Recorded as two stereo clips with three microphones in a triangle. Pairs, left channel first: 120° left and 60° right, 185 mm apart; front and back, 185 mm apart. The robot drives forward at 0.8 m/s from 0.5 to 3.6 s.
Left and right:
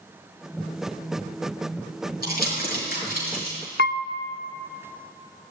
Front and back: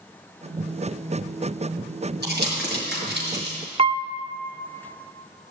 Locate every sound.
2.2 s crumpling: 155° left, 4.5 m; by 3.6 s 160° left, 5.5 m
3.8 s a piano: 125° left, 0.5 m